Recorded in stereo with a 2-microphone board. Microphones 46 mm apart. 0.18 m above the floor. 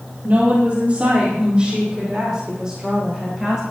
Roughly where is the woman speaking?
Right.